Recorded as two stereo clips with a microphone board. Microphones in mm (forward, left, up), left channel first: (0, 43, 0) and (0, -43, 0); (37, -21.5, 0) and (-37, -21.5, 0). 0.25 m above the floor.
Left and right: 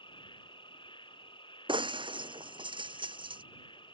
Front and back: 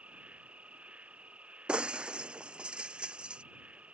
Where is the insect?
105° left.